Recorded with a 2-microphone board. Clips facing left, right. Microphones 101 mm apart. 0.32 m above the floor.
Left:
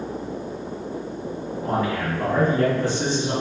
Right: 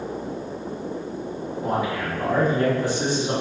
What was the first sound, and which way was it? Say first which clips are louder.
A man speaking: left 1 dB; 15° right (ahead or behind).